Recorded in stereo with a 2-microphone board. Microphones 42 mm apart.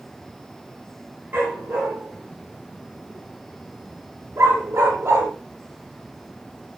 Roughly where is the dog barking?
Right.